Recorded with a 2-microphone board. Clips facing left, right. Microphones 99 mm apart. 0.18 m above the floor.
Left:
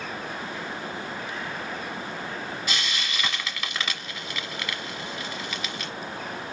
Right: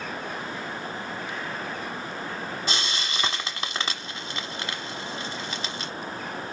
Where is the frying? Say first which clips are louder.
Right 1 dB; 30° right (ahead or behind), 1.1 m.